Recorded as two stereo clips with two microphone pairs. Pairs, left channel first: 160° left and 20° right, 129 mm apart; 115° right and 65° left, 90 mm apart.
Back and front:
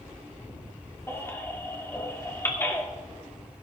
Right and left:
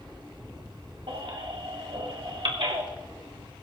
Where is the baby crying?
85° left, 2.5 m.